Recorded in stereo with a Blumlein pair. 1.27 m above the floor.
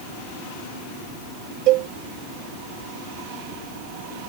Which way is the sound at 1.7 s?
40° right.